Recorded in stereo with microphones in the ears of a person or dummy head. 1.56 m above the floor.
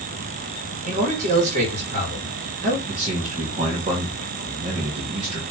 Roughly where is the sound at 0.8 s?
Right.